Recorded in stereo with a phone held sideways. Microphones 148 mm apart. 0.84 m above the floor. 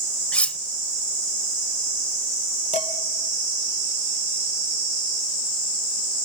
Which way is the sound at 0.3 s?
10° left (ahead or behind).